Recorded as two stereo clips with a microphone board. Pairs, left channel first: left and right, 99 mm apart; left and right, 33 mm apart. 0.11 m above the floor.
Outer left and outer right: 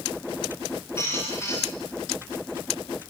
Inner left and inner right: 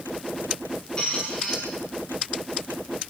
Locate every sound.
1.0 s a squeak: 25° left (ahead or behind), 6.5 m